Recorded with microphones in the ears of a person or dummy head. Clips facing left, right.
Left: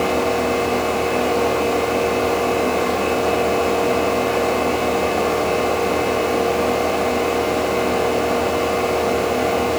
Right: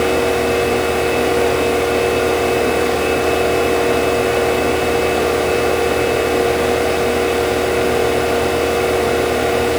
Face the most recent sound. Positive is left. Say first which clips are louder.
# right 3 dB
turn(degrees=-25)  # may be behind; listen again after turning